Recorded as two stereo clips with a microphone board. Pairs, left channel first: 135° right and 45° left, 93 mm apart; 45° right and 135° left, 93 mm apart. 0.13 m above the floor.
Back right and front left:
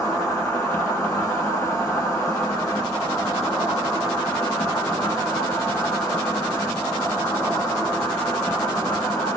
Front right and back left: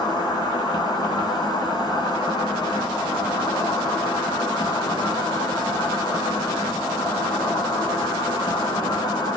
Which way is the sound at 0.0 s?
75° right.